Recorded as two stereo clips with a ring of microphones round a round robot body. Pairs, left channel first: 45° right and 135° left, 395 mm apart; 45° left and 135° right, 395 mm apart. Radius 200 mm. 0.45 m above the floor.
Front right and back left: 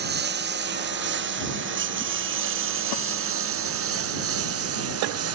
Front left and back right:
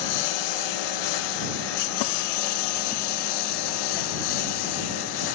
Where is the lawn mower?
70° left; by 5.3 s 80° left.